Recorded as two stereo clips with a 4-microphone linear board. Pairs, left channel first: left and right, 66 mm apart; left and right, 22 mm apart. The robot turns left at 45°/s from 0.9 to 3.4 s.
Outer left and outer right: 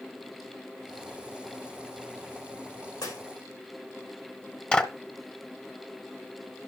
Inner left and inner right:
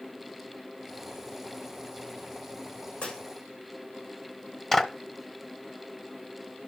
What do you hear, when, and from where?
3.0 s breaking glass: 70° left (ahead or behind), 6.5 m; by 3.2 s 80° left, 6.5 m
4.7 s a clap: 15° left (ahead or behind), 1.3 m